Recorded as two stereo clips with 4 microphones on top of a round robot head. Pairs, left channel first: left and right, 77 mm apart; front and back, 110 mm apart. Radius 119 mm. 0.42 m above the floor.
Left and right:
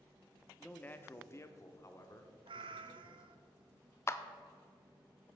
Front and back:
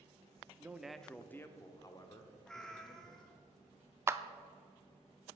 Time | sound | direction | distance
0.6 | a man speaking | 140° left | 0.8 m
2.5 | a cat meowing | 80° right | 0.6 m
4.1 | a clap | 125° left | 0.6 m